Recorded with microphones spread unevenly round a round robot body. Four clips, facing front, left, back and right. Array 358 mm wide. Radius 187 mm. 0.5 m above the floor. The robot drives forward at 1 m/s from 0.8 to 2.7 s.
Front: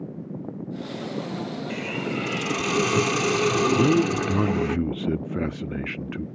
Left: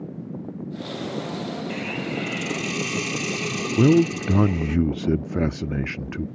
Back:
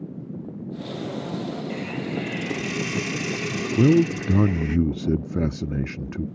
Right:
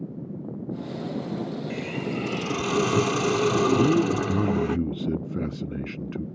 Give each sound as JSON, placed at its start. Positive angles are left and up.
{"t": 1.7, "sound": "a hiss", "azimuth_deg": -25}
{"t": 3.8, "sound": "a man speaking", "azimuth_deg": 115}